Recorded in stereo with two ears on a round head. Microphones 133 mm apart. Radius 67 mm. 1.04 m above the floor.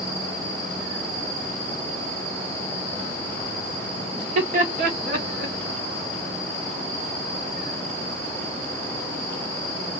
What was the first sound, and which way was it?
Laughter, 50° right (ahead or behind).